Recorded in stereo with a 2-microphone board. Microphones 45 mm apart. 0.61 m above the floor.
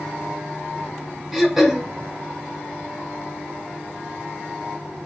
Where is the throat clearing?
5° right (ahead or behind), 0.9 m.